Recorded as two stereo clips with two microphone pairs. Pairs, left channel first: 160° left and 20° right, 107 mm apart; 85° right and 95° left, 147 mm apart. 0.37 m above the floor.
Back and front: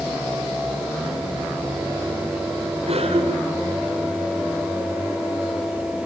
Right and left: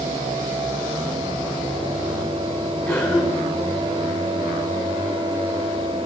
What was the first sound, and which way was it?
A cough, 10° right.